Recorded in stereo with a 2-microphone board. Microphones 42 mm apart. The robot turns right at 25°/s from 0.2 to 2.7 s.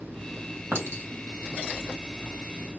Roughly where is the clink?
Right.